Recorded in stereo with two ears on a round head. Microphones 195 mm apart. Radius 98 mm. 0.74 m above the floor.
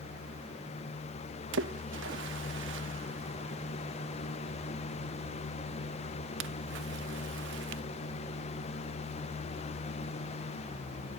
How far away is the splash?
About 0.8 m.